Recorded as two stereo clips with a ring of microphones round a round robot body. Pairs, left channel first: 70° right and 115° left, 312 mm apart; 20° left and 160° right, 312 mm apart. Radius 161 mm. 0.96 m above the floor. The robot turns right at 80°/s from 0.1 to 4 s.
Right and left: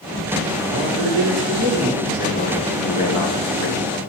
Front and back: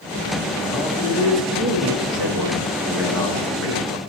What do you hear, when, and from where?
0.7 s a man speaking: 105° left, 1.3 m; by 4.0 s 5° left, 1.3 m